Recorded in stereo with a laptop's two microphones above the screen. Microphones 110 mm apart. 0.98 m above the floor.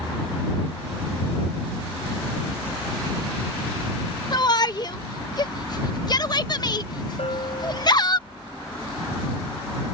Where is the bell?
60° left (ahead or behind).